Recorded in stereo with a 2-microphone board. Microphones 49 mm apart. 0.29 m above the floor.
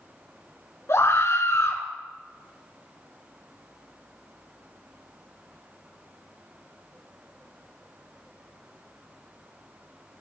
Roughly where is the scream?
Left.